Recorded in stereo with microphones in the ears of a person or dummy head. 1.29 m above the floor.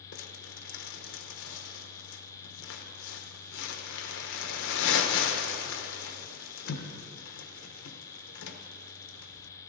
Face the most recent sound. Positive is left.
turn(degrees=70)  # may be behind; listen again after turning